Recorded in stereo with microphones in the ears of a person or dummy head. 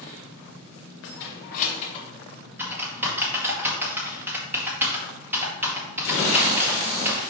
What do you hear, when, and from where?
1.0 s keys jangling: 65° left (ahead or behind), 1.3 m; by 2.0 s 30° left (ahead or behind), 1.3 m
2.6 s typing on a keyboard: 5° right (ahead or behind), 1.9 m